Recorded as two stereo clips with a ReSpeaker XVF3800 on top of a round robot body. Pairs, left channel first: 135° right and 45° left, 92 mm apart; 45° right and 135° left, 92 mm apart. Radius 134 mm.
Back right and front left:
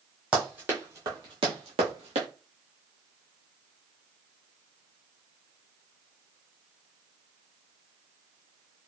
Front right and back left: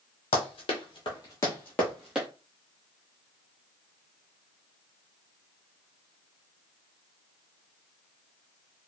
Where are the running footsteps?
35° right, 1.0 m; by 2.3 s 50° left, 0.9 m.